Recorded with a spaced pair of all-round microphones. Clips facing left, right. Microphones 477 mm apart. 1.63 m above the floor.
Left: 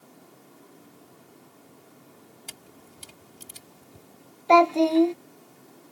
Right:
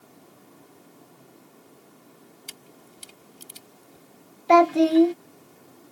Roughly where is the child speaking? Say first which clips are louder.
Right 2 dB; right.